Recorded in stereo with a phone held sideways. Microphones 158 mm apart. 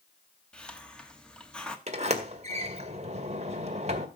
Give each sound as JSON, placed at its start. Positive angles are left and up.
{"t": 0.5, "sound": "a hiss", "side_deg": 5, "distance_m": 1.5}
{"t": 1.9, "sound": "a sliding door", "side_deg": -45, "distance_m": 1.8}